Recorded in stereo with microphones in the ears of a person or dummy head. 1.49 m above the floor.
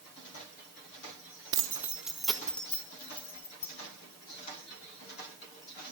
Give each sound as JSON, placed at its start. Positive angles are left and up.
{"t": 1.5, "sound": "keys jangling", "side_deg": -25, "distance_m": 0.7}